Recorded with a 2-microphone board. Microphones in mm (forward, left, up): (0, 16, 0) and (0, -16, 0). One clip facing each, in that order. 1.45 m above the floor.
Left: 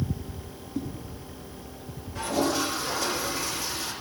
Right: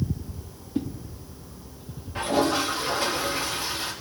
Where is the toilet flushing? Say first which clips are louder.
Right 3 dB; 40° right (ahead or behind), 3.5 m.